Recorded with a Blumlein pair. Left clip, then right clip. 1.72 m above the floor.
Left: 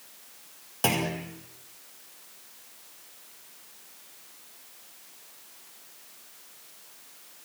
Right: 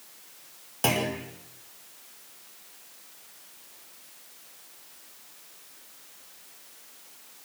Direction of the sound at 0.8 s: Straight ahead.